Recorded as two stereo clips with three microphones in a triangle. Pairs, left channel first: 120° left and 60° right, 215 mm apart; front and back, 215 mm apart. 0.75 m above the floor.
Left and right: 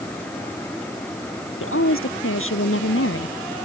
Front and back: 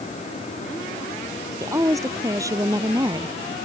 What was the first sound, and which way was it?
A woman speaking, 105° left.